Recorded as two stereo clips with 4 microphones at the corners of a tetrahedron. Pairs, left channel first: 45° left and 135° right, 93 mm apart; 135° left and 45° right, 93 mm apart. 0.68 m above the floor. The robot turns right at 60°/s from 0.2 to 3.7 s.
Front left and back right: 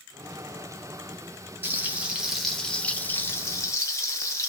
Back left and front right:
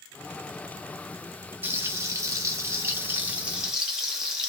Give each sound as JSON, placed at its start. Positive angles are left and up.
{"t": 1.6, "sound": "frying", "azimuth_deg": -90, "distance_m": 0.9}